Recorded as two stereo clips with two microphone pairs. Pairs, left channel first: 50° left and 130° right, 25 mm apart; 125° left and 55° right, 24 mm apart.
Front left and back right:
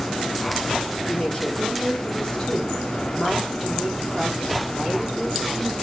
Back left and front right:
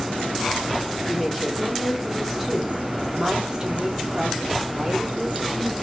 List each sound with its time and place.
1.1 s a woman speaking: 45° left, 1.8 m; by 5.7 s 65° right, 1.7 m